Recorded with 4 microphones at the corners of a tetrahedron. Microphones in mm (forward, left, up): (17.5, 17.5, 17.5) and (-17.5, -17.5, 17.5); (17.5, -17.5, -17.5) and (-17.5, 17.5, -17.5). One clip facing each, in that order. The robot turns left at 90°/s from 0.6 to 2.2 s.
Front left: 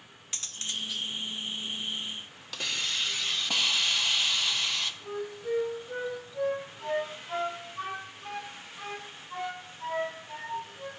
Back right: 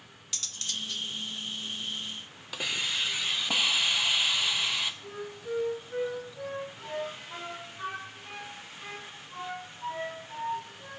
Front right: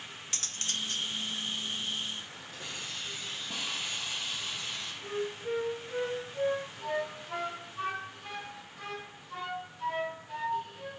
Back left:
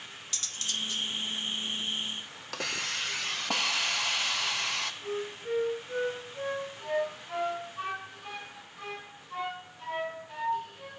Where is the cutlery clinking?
10° right, 0.6 m; by 1.1 s 55° right, 0.6 m.